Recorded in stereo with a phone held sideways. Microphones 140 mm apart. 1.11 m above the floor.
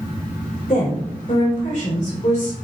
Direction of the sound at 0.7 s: 50° left (ahead or behind).